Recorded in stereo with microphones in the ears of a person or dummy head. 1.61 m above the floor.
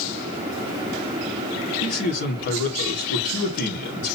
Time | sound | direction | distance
1.8 | a man speaking | 70° left (ahead or behind) | 1.7 m